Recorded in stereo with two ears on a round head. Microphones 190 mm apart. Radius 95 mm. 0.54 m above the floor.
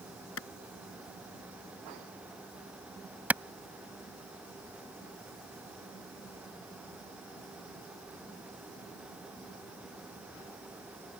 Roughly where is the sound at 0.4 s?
Left.